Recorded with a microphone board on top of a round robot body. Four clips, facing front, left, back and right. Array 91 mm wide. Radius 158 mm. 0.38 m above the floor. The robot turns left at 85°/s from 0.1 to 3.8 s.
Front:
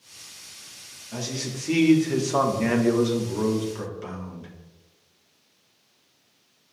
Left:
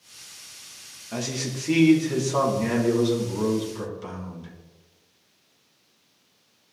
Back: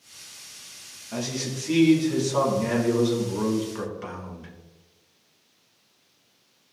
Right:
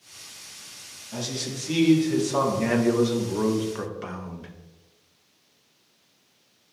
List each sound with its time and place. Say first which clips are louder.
1.1 s a man speaking: left 2 dB, back 2 dB; 110° left, 1.4 m; by 4.5 s 120° right, 1.4 m